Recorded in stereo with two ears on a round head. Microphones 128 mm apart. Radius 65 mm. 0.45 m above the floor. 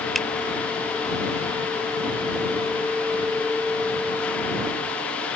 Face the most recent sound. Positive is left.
turn(degrees=0)  # may be behind; listen again after turning